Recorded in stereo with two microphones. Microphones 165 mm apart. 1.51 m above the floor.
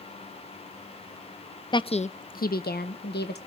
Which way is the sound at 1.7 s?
25° left (ahead or behind).